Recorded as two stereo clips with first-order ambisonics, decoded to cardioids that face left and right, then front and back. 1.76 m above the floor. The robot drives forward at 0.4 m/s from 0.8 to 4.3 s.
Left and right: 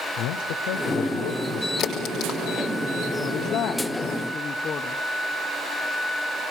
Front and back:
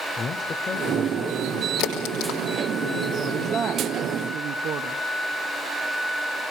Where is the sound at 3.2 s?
100° left, 0.6 m; by 5.0 s 140° left, 0.8 m.